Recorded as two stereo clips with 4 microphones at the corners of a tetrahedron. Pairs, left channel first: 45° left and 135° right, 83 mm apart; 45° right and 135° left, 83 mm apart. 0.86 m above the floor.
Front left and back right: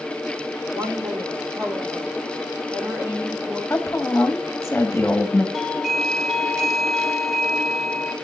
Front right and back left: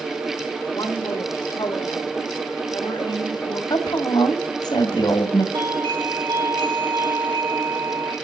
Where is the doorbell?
135° left, 3 m.